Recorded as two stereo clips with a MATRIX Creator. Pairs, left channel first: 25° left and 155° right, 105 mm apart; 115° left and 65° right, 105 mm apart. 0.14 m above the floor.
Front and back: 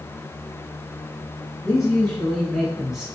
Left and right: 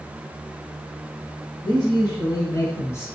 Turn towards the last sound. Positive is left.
turn(degrees=125)